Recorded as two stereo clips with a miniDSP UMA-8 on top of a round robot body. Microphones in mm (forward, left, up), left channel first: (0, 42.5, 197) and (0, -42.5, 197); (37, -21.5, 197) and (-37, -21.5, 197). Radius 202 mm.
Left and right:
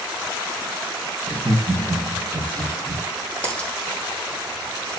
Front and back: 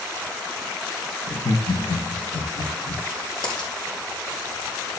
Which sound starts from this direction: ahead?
A dropped coin, at 3.4 s.